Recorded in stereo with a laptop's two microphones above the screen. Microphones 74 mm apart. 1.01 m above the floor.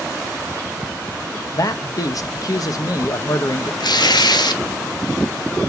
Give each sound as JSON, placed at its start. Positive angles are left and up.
{"t": 1.5, "sound": "a man speaking", "side_deg": 55, "distance_m": 1.1}
{"t": 3.8, "sound": "tearing paper", "side_deg": 80, "distance_m": 1.2}